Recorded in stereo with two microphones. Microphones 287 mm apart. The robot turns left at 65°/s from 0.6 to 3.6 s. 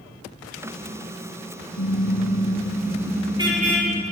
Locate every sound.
1.8 s a car horn: 90° left, 7.5 m; by 4.0 s 25° right, 7.5 m